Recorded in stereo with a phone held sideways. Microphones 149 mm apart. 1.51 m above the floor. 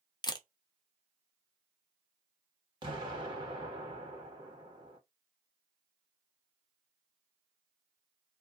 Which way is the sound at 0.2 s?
25° left (ahead or behind).